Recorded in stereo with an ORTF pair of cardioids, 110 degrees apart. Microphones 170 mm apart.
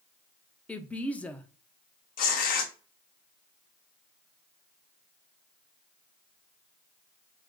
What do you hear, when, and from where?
0.7 s a woman speaking: 10° left, 0.6 m
2.2 s tearing paper: 55° left, 0.8 m